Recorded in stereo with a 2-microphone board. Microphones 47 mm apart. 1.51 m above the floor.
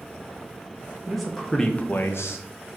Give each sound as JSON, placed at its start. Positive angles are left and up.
{"t": 1.1, "sound": "a man speaking", "side_deg": -5, "distance_m": 1.4}